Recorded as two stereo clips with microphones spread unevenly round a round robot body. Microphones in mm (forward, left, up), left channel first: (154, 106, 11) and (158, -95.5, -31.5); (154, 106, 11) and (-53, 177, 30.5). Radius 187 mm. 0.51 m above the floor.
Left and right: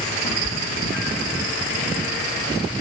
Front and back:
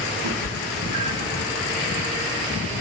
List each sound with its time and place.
0.2 s a cat meowing: 145° left, 1.3 m; by 1.4 s 80° left, 1.7 m